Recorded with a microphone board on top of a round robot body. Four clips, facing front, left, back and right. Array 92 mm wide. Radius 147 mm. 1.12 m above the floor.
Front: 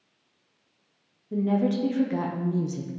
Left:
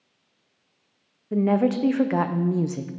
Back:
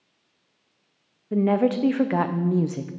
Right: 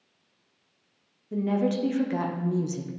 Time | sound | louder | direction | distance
1.3 | a woman speaking | left 5 dB, back 4 dB | 140° left | 0.7 m